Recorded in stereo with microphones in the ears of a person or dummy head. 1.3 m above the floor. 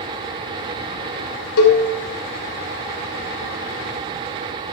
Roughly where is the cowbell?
Left.